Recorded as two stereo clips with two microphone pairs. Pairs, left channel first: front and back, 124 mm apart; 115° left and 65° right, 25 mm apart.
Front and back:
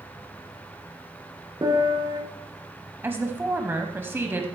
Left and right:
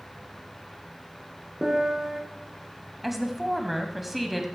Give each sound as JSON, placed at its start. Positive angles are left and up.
{"t": 1.6, "sound": "a piano", "azimuth_deg": -130, "distance_m": 1.9}
{"t": 3.0, "sound": "a woman speaking", "azimuth_deg": -145, "distance_m": 1.0}